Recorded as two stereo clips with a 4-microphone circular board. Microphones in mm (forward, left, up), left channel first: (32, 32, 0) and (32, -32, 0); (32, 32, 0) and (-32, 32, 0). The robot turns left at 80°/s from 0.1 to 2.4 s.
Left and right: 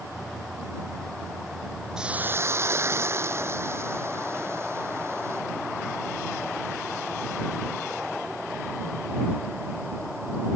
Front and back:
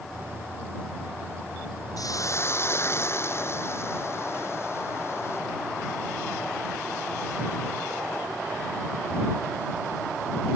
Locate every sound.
2.0 s a hiss: 10° right; by 5.4 s 45° right